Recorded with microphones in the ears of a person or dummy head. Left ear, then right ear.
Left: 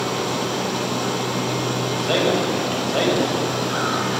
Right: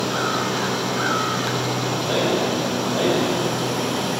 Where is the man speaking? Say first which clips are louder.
Left 2 dB; 60° left (ahead or behind), 8 m.